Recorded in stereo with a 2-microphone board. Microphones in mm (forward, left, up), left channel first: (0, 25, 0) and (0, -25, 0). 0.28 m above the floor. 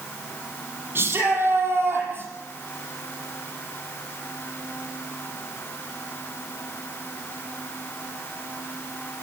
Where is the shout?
50° right (ahead or behind), 7.5 m.